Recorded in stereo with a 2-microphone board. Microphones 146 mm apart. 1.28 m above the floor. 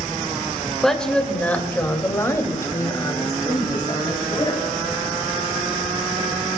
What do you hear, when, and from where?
0.8 s a woman speaking: centre (ahead or behind), 1.8 m; by 4.6 s 30° left (ahead or behind), 3.5 m